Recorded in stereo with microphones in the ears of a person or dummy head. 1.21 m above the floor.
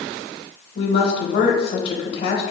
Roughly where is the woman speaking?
Left.